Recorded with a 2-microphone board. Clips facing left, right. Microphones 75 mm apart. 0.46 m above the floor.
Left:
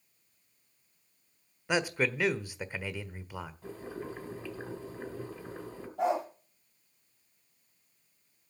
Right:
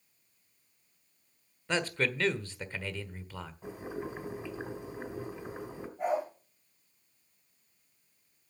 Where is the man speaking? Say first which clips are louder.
Left 2 dB; 10° left (ahead or behind), 1.3 m.